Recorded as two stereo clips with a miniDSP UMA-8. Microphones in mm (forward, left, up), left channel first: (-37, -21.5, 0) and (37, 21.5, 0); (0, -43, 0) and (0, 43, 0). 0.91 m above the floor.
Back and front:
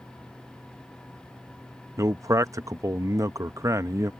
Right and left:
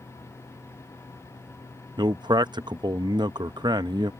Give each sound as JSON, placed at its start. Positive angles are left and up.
{"t": 2.0, "sound": "a man speaking", "azimuth_deg": 75}